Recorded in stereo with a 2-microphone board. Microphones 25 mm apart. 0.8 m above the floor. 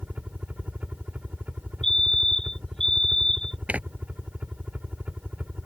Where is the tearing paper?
70° right (ahead or behind).